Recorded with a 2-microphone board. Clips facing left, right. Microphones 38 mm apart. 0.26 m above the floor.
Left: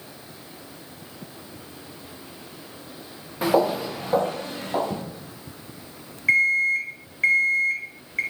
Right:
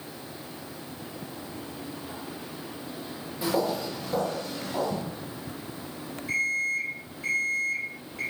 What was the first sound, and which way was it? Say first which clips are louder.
Footsteps: left 6 dB; 50° left (ahead or behind).